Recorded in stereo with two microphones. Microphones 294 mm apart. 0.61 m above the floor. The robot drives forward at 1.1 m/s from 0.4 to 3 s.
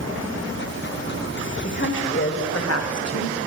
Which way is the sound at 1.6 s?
35° left (ahead or behind).